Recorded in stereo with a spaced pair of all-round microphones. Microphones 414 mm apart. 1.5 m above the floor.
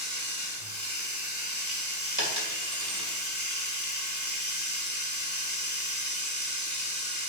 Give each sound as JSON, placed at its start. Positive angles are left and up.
{"t": 0.0, "sound": "running water", "side_deg": -45, "distance_m": 1.7}
{"t": 2.2, "sound": "a dropped coin", "side_deg": -45, "distance_m": 2.0}